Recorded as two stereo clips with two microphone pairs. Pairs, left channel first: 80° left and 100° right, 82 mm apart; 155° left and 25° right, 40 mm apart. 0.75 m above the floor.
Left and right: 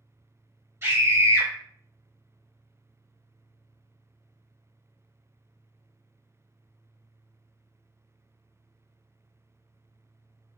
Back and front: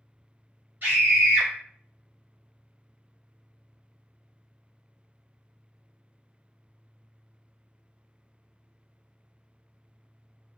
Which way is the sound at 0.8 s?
50° right.